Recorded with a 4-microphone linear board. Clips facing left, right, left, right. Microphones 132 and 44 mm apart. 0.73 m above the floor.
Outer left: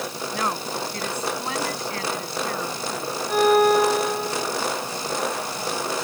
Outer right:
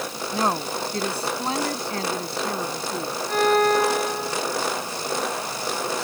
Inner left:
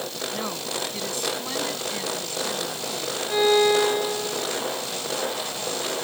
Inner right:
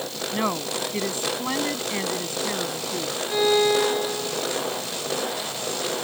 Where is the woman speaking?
30° right (ahead or behind).